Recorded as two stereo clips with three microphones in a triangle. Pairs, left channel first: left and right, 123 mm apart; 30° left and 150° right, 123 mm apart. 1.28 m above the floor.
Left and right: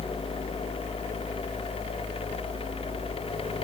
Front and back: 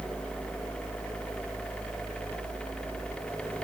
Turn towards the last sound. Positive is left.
No sound to turn to.